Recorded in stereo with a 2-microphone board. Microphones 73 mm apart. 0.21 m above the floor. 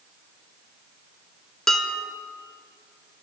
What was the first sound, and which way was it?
Dishes clattering, 5° left (ahead or behind).